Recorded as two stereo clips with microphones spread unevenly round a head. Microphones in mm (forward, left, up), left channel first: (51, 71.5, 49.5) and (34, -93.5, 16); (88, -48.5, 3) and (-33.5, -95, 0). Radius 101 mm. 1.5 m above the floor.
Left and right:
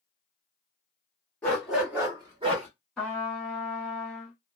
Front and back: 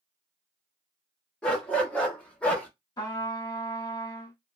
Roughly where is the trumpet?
Ahead.